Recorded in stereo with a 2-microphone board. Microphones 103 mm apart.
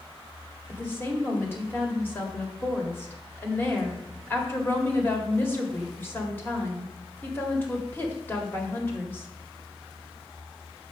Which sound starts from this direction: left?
A woman speaking, at 0.7 s.